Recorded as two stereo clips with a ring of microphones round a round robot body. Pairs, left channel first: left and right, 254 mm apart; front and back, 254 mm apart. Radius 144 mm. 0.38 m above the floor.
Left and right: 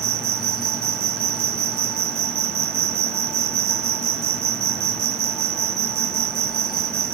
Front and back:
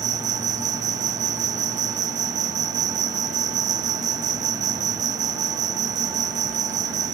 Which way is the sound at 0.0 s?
115° right.